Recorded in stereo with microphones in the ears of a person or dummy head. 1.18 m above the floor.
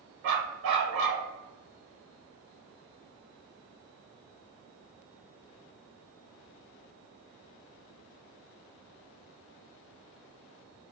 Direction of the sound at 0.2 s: 45° right (ahead or behind).